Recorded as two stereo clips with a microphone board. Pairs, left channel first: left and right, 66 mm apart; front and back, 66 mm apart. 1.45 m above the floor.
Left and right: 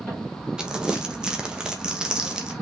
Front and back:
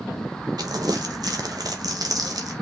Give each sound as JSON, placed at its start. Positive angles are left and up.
{"t": 0.6, "sound": "crumpling", "azimuth_deg": -170, "distance_m": 2.0}